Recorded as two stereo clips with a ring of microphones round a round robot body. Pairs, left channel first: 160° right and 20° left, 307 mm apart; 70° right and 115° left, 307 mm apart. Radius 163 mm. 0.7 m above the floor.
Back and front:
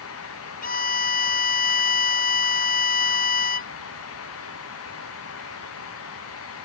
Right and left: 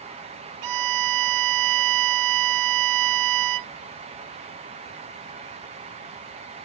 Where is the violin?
140° left.